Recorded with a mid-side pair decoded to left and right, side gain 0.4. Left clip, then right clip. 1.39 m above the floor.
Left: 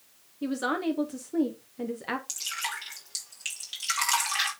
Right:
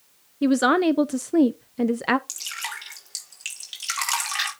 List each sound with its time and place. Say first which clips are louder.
0.4 s a woman speaking: right 10 dB; 70° right, 0.5 m
2.3 s dripping: right 1 dB; 25° right, 4.5 m